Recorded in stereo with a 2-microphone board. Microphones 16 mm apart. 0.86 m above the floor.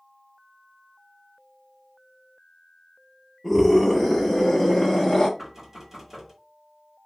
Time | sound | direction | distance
3.4 | a scream | centre (ahead or behind) | 2 m
5.4 | knocking | 20° right (ahead or behind) | 2.5 m